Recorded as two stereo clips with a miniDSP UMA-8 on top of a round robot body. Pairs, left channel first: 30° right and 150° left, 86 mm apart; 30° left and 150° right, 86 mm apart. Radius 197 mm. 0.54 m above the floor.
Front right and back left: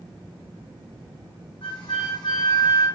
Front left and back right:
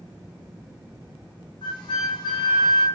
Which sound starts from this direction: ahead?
A flute, at 1.6 s.